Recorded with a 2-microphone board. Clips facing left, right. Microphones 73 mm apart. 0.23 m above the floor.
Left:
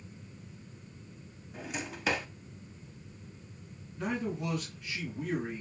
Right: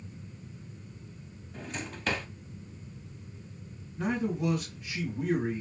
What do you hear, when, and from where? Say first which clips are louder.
1.5 s a drawer: even; 5° left (ahead or behind), 0.6 m
4.0 s a man speaking: right 4 dB; 25° right (ahead or behind), 2 m